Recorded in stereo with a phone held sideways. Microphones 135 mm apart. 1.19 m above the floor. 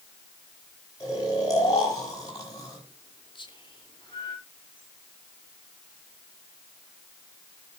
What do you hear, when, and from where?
1.0 s snoring: 30° left (ahead or behind), 7 m
3.4 s whispering: 35° left (ahead or behind), 2.5 m